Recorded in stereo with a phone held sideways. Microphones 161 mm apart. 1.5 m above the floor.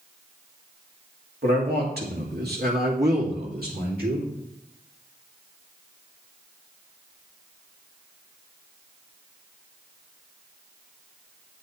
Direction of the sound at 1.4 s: 80° right.